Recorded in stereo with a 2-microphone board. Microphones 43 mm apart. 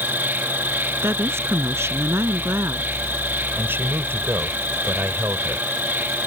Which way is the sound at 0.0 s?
55° right (ahead or behind).